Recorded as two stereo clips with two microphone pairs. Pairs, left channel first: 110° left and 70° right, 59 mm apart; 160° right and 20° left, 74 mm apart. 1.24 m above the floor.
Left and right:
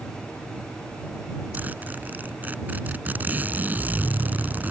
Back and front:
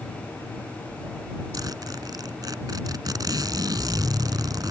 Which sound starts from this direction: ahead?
A zipper, at 1.5 s.